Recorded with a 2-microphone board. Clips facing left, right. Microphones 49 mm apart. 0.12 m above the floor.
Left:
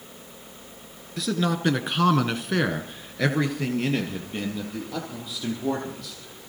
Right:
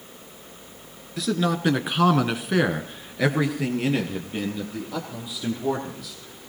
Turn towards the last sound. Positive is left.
turn(degrees=-5)  # may be behind; listen again after turning